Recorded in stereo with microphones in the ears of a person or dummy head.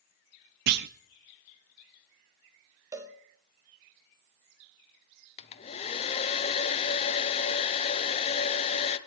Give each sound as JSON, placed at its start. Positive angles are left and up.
{"t": 0.7, "sound": "a clunk", "side_deg": -50, "distance_m": 0.6}
{"t": 2.9, "sound": "a cowbell", "side_deg": -15, "distance_m": 1.6}
{"t": 5.4, "sound": "a hair dryer", "side_deg": 30, "distance_m": 0.9}